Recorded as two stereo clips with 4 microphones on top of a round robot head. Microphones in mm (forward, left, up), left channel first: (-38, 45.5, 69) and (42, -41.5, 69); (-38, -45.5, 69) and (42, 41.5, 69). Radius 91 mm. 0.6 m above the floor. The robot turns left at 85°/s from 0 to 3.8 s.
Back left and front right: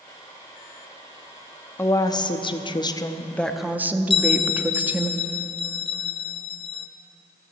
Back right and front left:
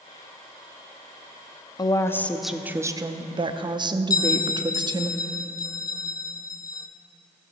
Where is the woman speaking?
165° right, 0.8 m; by 5.1 s 20° left, 0.8 m.